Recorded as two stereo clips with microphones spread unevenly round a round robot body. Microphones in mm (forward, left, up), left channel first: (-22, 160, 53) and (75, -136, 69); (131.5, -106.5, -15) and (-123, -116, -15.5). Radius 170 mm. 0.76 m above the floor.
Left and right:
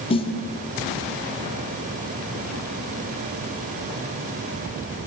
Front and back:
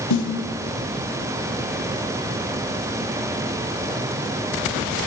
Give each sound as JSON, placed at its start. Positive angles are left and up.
{"t": 0.1, "sound": "a snare drum", "azimuth_deg": 35, "distance_m": 1.0}